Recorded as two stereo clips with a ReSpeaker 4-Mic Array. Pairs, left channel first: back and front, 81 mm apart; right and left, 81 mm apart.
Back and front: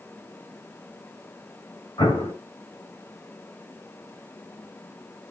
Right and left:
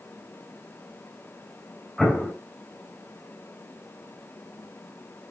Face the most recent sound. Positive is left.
turn(degrees=-175)